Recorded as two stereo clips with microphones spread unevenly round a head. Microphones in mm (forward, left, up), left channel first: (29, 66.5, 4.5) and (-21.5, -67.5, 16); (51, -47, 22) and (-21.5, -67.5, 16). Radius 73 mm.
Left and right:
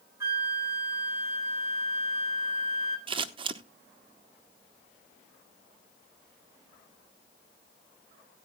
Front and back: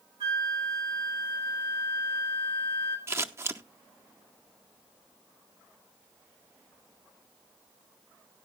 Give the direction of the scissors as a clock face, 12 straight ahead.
5 o'clock.